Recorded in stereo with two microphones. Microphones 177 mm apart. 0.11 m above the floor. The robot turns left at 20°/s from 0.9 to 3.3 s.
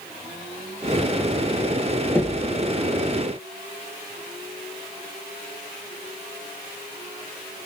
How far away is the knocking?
About 1.8 m.